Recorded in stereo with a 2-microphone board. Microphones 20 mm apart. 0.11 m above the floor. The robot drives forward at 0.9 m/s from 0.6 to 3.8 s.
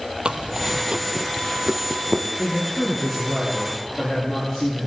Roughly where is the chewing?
Right.